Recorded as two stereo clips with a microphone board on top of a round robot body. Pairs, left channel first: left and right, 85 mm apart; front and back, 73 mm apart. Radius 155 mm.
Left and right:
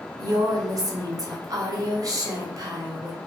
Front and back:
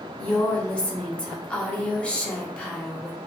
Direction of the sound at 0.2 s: 70° right.